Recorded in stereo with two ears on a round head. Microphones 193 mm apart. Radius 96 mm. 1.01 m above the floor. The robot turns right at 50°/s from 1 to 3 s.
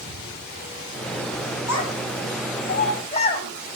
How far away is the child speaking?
About 5 m.